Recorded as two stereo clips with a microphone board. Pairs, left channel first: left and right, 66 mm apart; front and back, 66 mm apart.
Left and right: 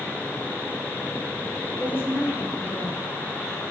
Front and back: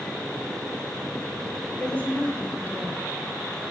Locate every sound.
1.8 s a woman speaking: 55° left, 1.5 m